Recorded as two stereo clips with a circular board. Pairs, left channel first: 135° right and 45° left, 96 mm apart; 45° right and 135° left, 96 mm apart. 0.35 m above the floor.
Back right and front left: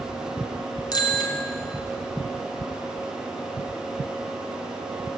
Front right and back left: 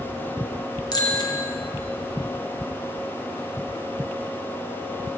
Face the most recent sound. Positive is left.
turn(degrees=-90)